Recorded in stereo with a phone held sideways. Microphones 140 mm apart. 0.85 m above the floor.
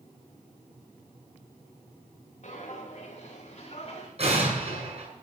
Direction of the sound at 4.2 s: 50° right (ahead or behind).